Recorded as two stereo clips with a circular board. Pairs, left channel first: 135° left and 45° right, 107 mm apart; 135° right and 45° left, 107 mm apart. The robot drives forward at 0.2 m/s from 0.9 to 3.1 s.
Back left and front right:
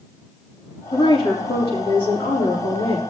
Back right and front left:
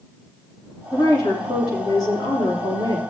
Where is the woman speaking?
175° left, 6 m.